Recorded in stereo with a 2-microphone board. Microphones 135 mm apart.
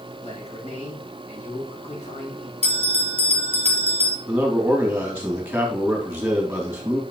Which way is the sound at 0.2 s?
55° left (ahead or behind).